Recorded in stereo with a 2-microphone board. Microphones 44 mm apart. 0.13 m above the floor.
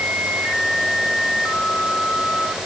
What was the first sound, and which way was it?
Only background noise.